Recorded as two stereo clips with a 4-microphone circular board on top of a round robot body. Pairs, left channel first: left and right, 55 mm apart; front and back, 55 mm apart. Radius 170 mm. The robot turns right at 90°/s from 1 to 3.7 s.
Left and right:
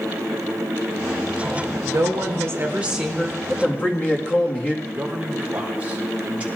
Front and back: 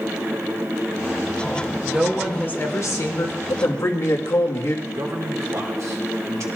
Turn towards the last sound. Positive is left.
turn(degrees=-155)